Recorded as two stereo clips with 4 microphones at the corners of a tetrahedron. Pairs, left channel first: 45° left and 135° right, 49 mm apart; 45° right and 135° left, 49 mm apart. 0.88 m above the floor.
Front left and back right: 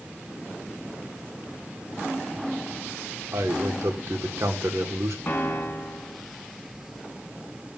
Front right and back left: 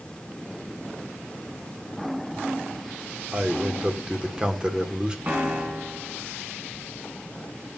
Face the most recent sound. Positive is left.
turn(degrees=85)